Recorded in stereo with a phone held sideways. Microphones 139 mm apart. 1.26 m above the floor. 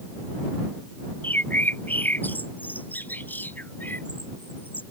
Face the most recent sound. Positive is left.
turn(degrees=10)  # may be behind; listen again after turning